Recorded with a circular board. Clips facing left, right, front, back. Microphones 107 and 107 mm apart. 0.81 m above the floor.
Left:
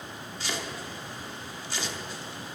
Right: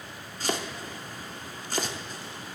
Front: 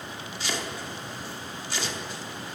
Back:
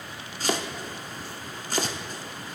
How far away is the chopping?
About 0.9 m.